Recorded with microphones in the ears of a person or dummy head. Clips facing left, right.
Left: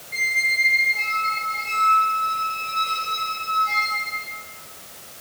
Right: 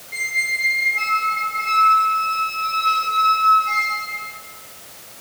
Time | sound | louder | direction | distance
0.1 | a squeak | left 1 dB | centre (ahead or behind) | 1.7 m